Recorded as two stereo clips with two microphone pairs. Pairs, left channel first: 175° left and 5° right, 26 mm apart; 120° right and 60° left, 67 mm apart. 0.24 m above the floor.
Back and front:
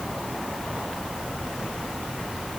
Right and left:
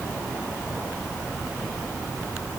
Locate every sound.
Only background noise.